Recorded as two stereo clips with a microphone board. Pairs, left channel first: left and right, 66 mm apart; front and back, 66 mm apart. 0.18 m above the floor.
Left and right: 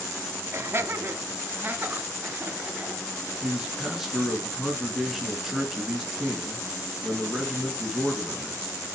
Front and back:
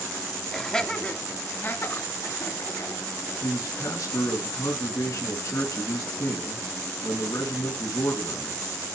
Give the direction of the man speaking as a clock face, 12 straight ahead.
12 o'clock.